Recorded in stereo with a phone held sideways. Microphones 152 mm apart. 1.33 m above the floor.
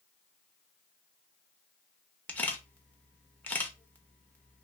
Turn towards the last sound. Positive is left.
turn(degrees=10)  # may be behind; listen again after turning